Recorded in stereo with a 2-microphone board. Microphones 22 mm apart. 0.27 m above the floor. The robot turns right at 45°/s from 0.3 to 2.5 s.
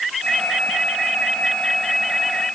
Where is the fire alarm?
I don't hear a fire alarm.